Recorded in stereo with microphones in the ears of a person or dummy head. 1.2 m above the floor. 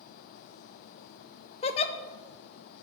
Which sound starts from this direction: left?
A giggle, at 1.6 s.